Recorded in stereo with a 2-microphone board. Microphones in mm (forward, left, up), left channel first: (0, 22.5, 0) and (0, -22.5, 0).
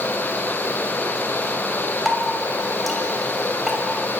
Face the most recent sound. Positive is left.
turn(degrees=0)  # may be behind; listen again after turning